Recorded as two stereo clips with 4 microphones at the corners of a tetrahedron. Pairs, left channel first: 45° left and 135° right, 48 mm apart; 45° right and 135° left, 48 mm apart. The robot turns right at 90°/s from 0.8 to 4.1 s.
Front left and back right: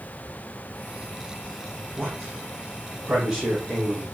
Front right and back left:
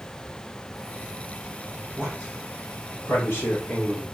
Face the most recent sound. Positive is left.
turn(degrees=20)